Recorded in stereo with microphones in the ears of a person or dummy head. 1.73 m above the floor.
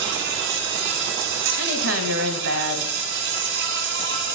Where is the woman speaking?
70° right (ahead or behind), 1.7 m.